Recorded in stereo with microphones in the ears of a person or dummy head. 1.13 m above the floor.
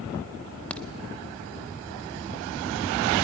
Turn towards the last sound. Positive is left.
turn(degrees=10)  # may be behind; listen again after turning